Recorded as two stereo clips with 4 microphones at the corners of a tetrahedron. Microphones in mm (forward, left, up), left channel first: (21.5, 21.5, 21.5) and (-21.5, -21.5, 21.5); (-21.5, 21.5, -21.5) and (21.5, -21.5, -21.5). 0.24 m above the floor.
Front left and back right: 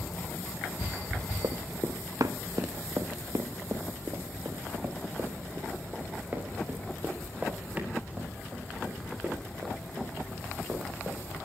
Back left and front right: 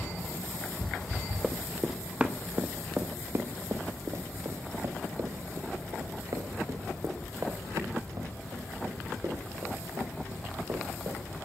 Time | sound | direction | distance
1.4 | running footsteps | 140° right | 1.3 m